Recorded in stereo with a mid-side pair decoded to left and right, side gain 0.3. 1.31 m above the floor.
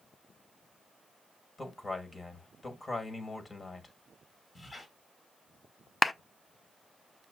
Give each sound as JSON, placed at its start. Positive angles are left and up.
{"t": 1.6, "sound": "a man speaking", "azimuth_deg": 40, "distance_m": 1.8}
{"t": 4.5, "sound": "a squeak", "azimuth_deg": 35, "distance_m": 1.9}
{"t": 6.0, "sound": "a clap", "azimuth_deg": 35, "distance_m": 0.6}